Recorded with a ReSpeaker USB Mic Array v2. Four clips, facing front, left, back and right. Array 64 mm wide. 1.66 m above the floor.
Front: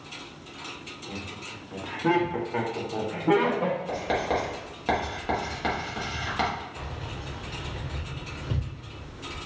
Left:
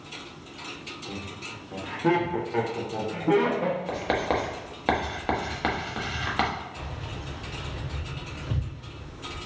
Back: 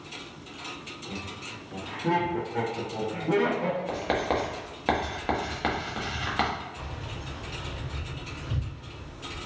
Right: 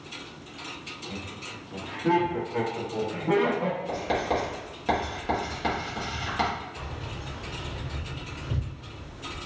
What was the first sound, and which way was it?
Laughter, 90° left.